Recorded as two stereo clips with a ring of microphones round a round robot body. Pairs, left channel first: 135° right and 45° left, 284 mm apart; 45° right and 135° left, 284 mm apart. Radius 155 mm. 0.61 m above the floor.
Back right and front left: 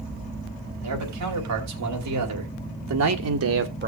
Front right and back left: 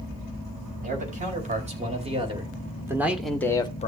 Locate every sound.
0.8 s a man speaking: 70° left, 4 m; by 3.9 s 5° left, 1.2 m